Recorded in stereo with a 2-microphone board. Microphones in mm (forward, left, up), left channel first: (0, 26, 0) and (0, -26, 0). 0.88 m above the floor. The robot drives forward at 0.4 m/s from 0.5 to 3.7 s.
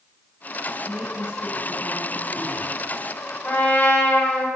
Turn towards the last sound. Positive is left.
turn(degrees=40)  # may be behind; listen again after turning